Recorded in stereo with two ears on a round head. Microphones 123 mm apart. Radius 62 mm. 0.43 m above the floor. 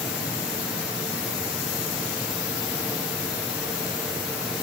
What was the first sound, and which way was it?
Only background noise.